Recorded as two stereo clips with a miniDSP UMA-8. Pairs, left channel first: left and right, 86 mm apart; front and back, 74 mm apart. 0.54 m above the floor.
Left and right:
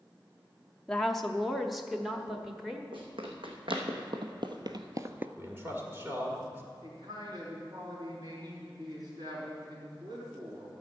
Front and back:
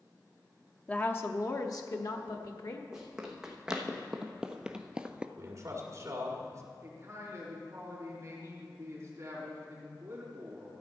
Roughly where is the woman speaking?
Ahead.